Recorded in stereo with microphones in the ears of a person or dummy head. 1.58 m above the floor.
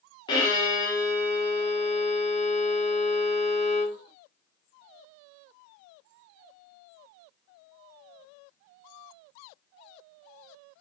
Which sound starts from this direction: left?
A violin, at 0.3 s.